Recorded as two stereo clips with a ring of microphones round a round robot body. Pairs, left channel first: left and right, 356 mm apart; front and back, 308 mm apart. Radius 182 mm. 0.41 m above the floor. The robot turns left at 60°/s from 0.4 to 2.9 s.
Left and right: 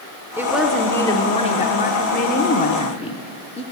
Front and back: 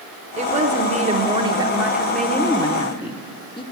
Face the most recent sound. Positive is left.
turn(degrees=45)